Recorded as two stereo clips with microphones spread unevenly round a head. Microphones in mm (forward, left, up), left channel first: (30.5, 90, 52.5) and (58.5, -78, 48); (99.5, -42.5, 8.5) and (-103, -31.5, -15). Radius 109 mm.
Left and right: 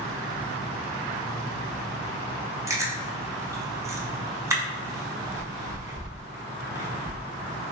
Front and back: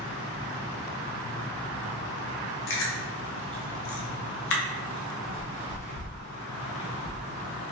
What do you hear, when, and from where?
2.7 s chewing: 10° right, 0.6 m